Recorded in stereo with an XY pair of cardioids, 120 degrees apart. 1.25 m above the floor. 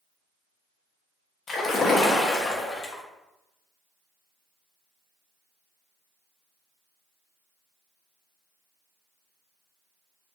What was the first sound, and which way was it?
A splash, 40° left.